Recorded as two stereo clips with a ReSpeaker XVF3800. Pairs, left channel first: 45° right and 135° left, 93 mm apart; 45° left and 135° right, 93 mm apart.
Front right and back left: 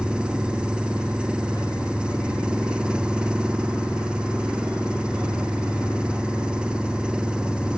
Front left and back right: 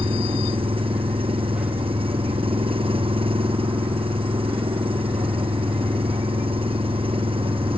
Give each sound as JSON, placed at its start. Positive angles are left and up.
{"t": 0.0, "sound": "an engine running", "azimuth_deg": -145}